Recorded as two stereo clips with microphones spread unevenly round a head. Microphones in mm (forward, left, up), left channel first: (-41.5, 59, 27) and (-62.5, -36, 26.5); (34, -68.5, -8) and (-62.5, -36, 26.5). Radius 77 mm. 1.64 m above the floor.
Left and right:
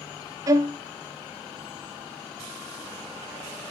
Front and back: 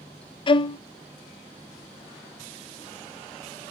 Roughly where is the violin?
Ahead right.